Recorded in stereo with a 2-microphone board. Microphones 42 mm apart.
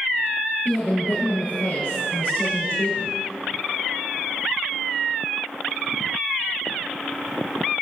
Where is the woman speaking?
75° left (ahead or behind), 4.5 m.